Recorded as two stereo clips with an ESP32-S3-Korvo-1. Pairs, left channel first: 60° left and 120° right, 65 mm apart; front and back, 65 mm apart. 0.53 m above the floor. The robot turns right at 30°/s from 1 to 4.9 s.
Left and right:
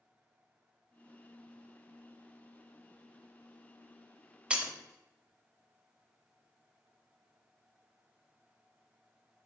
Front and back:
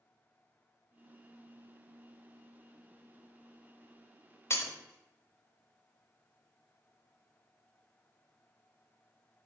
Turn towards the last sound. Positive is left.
turn(degrees=-35)